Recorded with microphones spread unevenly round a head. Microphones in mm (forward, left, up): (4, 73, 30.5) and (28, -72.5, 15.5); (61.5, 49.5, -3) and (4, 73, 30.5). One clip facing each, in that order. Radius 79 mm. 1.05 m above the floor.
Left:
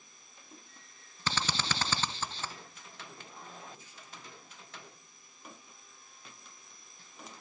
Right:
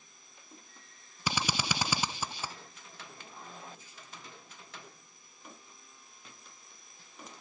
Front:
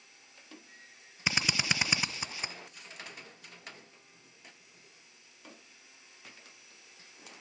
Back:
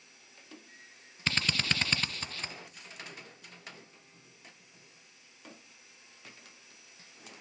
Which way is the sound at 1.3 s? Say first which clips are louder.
Right 1 dB, front 1 dB; 15° right.